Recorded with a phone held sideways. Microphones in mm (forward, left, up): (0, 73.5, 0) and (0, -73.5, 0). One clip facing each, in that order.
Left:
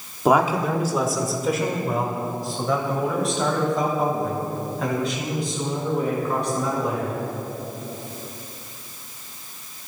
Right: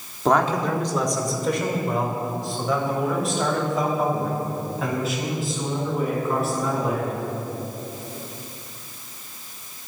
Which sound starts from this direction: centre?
A man speaking, at 0.2 s.